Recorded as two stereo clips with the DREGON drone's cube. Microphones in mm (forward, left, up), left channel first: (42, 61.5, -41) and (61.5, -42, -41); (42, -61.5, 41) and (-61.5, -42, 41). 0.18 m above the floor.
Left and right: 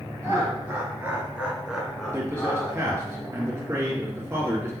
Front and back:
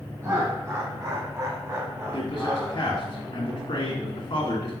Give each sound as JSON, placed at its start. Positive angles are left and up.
{"t": 0.2, "sound": "laughter", "azimuth_deg": -135, "distance_m": 2.5}
{"t": 2.1, "sound": "a man speaking", "azimuth_deg": -20, "distance_m": 2.5}